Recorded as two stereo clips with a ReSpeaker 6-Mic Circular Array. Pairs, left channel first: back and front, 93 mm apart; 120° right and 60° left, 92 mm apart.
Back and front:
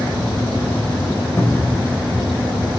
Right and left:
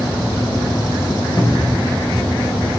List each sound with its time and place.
1.4 s a cupboard door: 135° right, 0.9 m